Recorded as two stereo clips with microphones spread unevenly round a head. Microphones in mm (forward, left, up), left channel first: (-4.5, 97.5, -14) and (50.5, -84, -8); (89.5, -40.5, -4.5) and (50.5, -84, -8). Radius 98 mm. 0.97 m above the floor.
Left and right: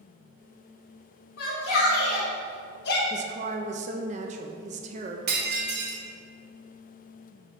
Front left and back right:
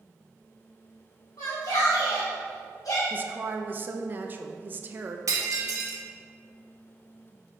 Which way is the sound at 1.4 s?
85° left.